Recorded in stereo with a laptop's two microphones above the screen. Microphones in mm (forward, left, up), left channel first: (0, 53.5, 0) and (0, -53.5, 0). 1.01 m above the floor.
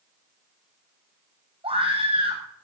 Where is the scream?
60° right (ahead or behind), 8.5 m.